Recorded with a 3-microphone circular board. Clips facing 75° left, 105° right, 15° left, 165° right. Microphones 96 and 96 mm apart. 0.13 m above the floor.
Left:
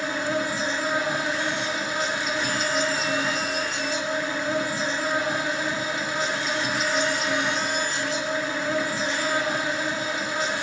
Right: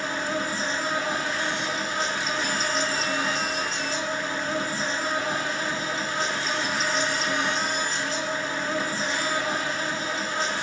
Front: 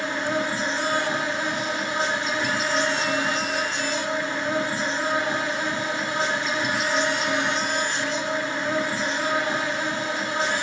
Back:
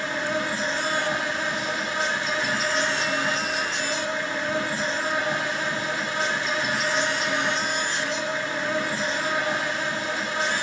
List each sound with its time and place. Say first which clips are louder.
0.0 s an insect: left 2 dB, front 1 dB; 10° left, 1.7 m